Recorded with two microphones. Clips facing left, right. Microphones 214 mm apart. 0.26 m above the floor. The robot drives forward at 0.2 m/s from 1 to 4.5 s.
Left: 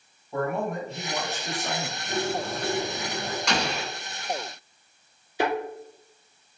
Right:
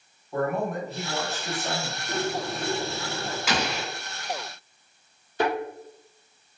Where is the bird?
30° left (ahead or behind), 1.4 m.